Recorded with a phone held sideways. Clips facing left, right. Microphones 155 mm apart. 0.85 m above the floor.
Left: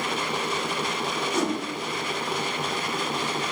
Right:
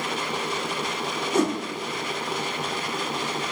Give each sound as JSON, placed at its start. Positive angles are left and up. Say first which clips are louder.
{"t": 1.3, "sound": "a whoosh", "louder": "right 4 dB", "side_deg": -55, "distance_m": 0.9}